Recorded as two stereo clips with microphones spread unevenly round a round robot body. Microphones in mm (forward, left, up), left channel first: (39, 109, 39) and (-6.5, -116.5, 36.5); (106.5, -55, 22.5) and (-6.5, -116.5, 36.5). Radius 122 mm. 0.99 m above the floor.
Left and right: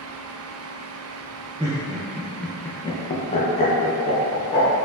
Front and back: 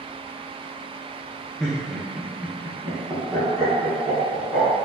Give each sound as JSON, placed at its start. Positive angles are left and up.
{"t": 1.6, "sound": "laughter", "azimuth_deg": -50, "distance_m": 0.7}